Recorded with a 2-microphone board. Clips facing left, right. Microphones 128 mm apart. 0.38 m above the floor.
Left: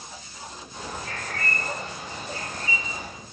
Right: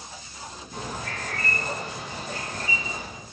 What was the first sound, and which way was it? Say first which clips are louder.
A bird: right 2 dB; 70° right (ahead or behind).